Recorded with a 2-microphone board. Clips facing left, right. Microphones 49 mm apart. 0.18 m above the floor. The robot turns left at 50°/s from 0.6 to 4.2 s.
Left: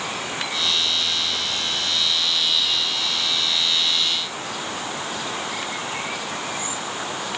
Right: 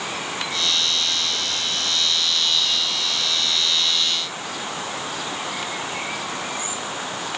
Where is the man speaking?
I don't hear a man speaking.